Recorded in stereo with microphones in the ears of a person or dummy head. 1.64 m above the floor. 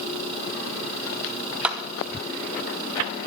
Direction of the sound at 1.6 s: Centre (ahead or behind).